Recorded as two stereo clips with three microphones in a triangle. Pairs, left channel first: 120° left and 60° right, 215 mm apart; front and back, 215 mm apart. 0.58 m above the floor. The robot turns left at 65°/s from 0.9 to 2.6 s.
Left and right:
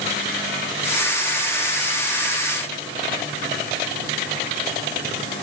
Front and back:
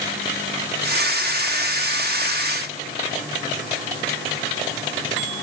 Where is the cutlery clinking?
I don't hear cutlery clinking.